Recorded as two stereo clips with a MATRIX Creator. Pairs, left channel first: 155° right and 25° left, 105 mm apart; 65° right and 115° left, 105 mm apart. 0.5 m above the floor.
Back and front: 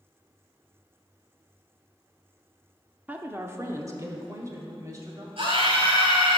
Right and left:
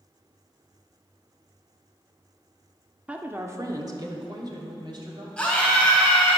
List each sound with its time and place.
3.1 s a woman speaking: 60° left, 0.6 m; by 5.3 s 75° left, 2 m
5.4 s a scream: 10° left, 3 m